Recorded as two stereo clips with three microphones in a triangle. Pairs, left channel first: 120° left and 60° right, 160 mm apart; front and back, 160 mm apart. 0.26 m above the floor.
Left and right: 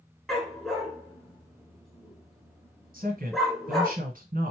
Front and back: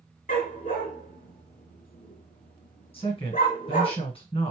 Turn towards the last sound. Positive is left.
turn(degrees=-50)